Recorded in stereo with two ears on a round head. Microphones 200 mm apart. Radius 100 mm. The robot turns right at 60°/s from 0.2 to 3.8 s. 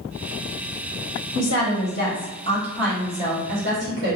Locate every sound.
1.4 s a woman speaking: 90° left, 1.4 m; by 4.2 s 125° right, 1.4 m